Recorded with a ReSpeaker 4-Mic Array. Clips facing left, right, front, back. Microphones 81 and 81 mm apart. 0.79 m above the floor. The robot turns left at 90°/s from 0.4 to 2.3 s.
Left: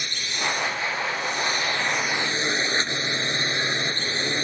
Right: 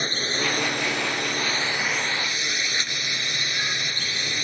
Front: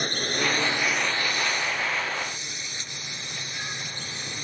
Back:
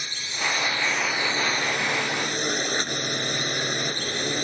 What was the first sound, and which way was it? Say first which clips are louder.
A drone: right 2 dB, front 4 dB; 40° right.